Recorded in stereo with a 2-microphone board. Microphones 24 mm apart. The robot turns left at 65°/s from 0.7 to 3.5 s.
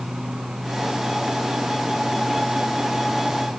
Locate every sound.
Only background noise.